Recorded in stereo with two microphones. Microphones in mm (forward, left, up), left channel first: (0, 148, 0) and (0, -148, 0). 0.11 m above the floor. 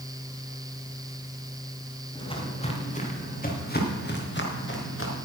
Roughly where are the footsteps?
Centre.